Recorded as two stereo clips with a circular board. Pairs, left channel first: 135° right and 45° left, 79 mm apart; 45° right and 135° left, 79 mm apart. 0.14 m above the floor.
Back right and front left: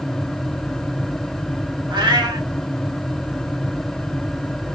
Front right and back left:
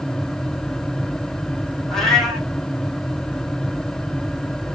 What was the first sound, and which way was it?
A cat meowing, 40° left.